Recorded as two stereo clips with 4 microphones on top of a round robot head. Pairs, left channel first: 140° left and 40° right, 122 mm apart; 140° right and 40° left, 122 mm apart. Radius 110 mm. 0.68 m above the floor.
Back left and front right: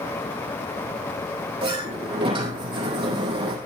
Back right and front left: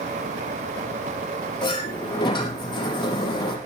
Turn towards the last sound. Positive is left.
turn(degrees=-90)